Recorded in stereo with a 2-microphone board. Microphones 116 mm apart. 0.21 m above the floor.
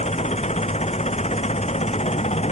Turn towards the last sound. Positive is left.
turn(degrees=70)  # may be behind; listen again after turning